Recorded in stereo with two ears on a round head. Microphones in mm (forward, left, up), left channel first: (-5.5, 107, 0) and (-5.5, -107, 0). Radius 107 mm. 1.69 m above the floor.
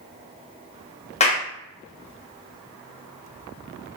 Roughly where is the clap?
Left.